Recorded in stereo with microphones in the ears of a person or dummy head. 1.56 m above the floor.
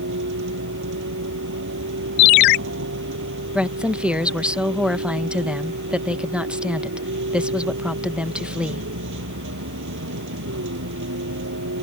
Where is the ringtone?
45° left (ahead or behind).